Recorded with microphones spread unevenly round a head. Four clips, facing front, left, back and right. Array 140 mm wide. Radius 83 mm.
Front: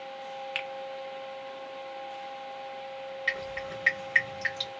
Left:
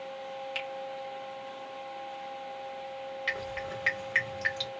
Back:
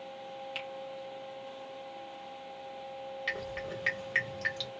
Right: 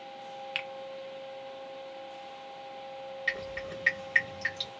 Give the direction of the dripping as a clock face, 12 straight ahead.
6 o'clock.